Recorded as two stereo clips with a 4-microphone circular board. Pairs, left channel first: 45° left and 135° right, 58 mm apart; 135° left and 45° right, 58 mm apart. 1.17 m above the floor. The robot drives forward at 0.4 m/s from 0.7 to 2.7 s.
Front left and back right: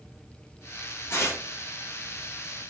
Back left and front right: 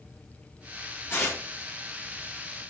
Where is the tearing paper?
85° left, 3 m.